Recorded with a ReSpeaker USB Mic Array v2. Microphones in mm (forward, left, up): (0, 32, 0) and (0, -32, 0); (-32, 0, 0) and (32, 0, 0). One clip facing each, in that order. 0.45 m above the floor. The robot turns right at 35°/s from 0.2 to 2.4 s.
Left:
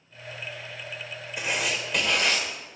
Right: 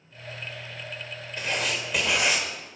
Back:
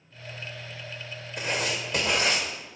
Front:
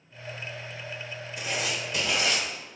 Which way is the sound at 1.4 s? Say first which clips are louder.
Even, back 2 dB; 165° left.